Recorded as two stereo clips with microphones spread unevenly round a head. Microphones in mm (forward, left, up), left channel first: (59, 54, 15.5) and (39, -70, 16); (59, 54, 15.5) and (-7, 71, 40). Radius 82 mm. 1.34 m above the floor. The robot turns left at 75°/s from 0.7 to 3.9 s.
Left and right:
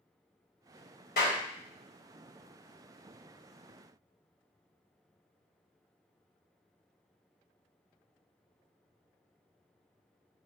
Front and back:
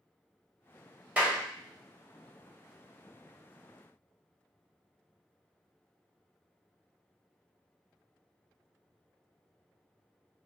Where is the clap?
100° left, 1.3 m; by 1.4 s 80° left, 1.3 m.